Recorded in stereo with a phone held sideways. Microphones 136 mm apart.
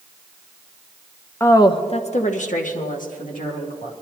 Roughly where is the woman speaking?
Centre.